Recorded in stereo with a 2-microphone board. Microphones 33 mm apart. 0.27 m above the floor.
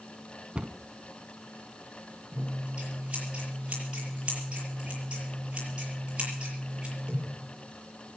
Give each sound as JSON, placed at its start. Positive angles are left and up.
{"t": 0.6, "sound": "a cupboard door", "side_deg": -35, "distance_m": 0.7}
{"t": 2.3, "sound": "scissors", "side_deg": -30, "distance_m": 7.0}